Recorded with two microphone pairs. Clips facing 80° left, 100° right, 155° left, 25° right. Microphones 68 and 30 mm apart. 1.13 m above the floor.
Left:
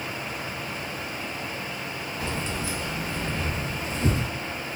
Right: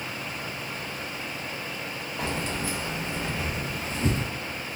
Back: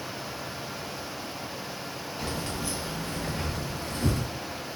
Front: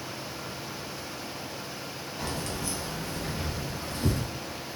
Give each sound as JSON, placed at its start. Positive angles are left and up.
{"t": 2.2, "sound": "keys jangling", "azimuth_deg": -120, "distance_m": 0.7}